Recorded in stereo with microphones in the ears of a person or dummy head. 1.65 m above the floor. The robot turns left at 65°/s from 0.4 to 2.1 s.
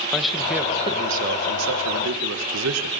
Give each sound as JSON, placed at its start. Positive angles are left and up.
{"t": 0.1, "sound": "a man speaking", "azimuth_deg": 0, "distance_m": 2.0}